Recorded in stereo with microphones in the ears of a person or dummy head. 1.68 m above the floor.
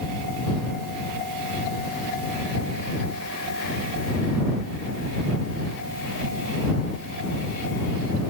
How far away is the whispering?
No whispering in this recording.